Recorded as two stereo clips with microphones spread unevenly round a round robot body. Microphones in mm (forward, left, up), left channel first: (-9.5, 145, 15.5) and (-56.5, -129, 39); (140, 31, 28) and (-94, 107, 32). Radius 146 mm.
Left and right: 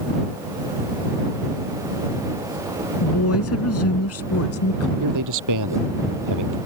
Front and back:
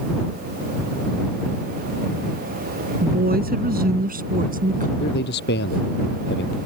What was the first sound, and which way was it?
A woman speaking, 115° left.